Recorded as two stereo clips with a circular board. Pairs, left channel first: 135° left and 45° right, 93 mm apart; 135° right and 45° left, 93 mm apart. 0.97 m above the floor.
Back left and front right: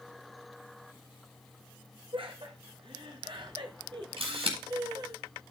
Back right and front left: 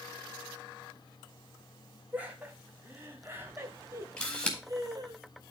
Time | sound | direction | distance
2.1 | laughter | 25° right | 3 m
4.2 | a camera shutter | 55° right | 3.5 m